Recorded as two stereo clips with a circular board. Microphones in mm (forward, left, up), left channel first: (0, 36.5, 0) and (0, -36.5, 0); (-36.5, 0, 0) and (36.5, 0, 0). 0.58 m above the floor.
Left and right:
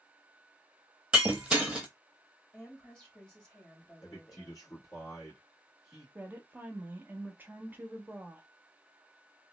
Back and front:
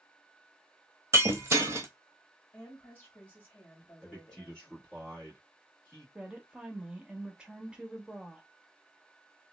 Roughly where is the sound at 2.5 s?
Behind left.